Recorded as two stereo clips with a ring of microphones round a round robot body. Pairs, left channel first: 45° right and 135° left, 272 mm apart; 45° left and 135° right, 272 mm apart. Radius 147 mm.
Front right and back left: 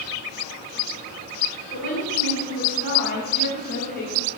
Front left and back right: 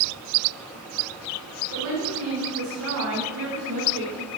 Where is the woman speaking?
95° right, 2.5 m.